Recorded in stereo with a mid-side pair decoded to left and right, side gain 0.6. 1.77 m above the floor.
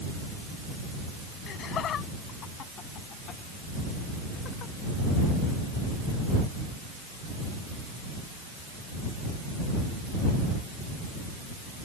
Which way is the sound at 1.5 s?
50° left.